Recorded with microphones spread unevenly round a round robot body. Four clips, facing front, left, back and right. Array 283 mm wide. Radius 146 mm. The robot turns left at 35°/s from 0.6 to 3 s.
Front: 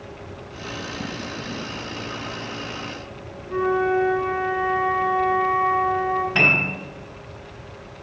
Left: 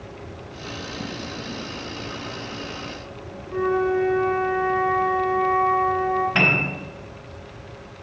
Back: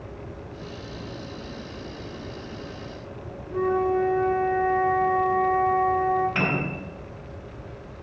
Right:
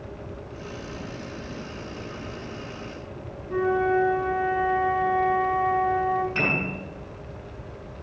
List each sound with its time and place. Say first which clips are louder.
3.5 s a flute: left 1 dB, front 2 dB; 25° right, 1.9 m
6.3 s a piano: left 4 dB, front 3 dB; 70° left, 5 m